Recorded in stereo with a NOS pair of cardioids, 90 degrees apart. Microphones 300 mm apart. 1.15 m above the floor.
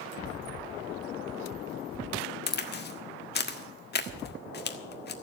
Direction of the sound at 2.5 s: 35° left.